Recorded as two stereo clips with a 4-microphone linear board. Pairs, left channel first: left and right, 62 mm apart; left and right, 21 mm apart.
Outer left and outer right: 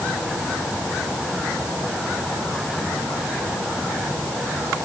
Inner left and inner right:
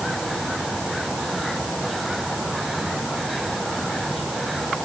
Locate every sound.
Only background noise.